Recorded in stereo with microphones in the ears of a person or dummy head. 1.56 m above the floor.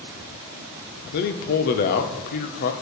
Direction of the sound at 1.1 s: 55° left (ahead or behind).